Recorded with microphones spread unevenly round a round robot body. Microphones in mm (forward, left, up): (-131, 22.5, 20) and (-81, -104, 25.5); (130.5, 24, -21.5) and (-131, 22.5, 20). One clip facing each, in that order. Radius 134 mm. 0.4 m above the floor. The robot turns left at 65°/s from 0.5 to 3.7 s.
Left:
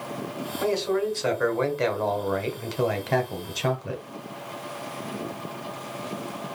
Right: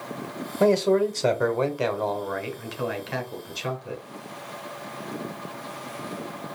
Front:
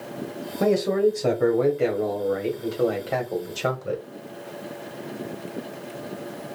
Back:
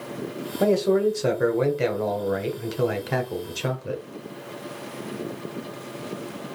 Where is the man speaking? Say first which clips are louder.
Right 5 dB, even; 70° right, 1.2 m; by 4.0 s 85° left, 1.2 m.